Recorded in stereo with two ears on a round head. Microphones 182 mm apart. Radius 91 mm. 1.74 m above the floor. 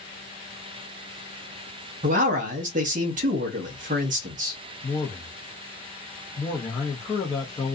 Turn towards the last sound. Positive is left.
turn(degrees=15)  # may be behind; listen again after turning